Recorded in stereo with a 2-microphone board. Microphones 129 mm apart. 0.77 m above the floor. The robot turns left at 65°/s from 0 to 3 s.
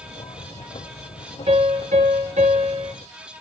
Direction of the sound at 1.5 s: 55° right.